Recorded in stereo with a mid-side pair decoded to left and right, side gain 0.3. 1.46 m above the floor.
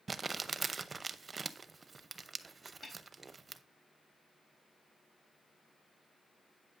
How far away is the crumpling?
About 0.6 m.